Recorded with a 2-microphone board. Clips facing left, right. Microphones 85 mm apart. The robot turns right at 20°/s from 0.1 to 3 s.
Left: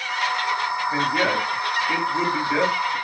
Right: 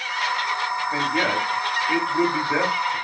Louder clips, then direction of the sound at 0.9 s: Left 1 dB; 5° left (ahead or behind).